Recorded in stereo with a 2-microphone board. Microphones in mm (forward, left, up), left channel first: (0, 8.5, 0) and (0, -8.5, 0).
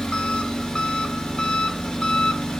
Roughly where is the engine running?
Left.